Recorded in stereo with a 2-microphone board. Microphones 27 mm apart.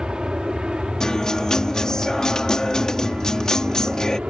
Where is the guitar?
25° left (ahead or behind).